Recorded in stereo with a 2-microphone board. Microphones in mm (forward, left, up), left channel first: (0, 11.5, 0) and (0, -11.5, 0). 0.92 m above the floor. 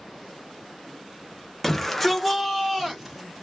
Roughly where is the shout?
Centre.